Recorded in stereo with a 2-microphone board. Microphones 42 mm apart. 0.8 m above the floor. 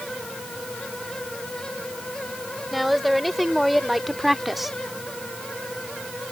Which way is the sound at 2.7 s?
5° left (ahead or behind).